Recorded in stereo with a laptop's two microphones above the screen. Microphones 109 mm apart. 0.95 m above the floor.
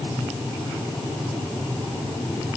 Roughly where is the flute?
No flute in this recording.